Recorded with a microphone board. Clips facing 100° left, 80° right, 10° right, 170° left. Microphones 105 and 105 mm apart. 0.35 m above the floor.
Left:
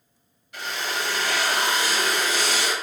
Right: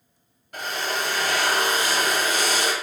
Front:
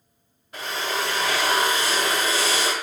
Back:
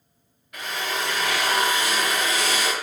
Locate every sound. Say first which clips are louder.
0.5 s a drill: right 2 dB, front 1 dB; 60° right, 1.3 m